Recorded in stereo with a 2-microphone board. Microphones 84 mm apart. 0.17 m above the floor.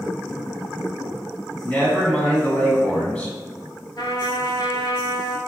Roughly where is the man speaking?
Centre.